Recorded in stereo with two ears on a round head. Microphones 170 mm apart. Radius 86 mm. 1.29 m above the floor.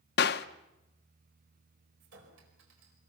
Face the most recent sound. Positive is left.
turn(degrees=-65)  # may be behind; listen again after turning